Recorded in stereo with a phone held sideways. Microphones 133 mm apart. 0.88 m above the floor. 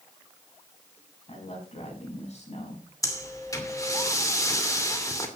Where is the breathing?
25° left (ahead or behind), 2.5 m.